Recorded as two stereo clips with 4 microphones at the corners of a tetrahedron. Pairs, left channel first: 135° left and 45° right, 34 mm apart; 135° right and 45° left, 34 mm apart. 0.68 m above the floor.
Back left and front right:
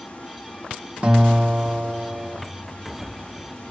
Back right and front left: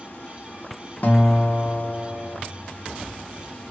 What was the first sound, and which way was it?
Running water, 170° right.